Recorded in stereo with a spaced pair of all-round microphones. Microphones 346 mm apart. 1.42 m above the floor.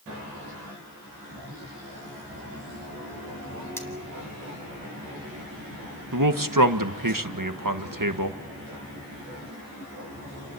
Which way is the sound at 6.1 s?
60° right (ahead or behind).